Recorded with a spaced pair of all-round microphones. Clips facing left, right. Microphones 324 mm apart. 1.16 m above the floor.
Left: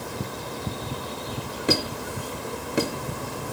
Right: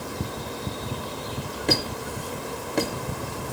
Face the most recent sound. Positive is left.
turn(degrees=10)  # may be behind; listen again after turning